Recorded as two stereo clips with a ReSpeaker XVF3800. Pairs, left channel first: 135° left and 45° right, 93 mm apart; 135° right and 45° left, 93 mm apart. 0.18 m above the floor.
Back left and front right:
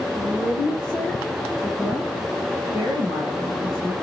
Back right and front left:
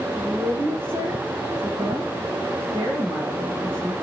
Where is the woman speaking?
90° left, 1.5 m; by 3.9 s 25° right, 2 m.